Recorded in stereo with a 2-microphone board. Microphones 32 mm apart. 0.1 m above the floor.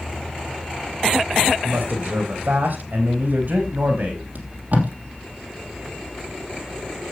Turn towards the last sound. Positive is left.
turn(degrees=-55)  # may be behind; listen again after turning